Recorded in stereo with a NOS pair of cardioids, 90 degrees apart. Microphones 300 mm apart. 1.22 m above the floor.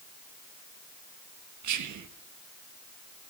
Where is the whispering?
65° right, 1.3 m.